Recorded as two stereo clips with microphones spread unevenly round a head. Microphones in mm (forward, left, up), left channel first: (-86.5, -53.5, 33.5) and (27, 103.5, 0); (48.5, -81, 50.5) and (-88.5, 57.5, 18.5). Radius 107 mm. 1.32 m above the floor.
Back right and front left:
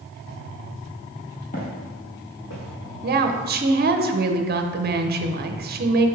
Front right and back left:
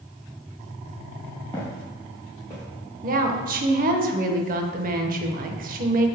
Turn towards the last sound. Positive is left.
turn(degrees=90)